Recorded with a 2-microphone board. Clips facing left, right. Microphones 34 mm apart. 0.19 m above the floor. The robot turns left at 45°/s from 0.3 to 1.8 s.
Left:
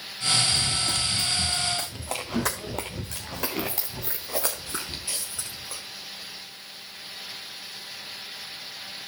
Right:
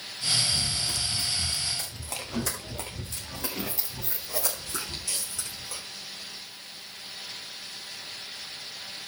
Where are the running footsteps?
70° left (ahead or behind), 4 m; by 5.8 s 20° left (ahead or behind), 4 m.